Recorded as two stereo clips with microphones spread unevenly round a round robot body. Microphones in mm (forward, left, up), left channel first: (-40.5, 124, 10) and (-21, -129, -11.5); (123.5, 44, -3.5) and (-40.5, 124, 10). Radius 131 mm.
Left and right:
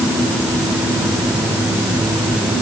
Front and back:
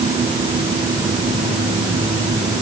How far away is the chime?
No chime in this recording.